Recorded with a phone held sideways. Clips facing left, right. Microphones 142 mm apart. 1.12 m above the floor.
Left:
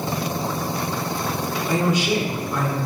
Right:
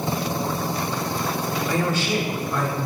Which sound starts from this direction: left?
A man speaking, at 1.7 s.